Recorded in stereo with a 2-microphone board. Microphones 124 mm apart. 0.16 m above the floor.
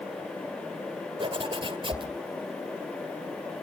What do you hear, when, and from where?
1.2 s a zipper: 40° right (ahead or behind), 1.9 m